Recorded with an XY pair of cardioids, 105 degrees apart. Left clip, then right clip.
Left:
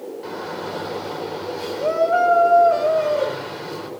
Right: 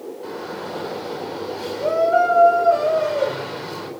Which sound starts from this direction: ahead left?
A shout, at 0.2 s.